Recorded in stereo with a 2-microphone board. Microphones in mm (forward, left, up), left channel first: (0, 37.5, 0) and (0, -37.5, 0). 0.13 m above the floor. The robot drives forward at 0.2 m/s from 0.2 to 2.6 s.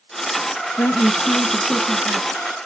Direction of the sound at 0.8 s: 20° left (ahead or behind).